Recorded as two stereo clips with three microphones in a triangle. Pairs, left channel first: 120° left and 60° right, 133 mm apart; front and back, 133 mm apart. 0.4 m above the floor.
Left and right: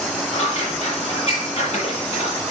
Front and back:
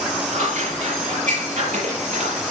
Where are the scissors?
165° left, 9.5 m.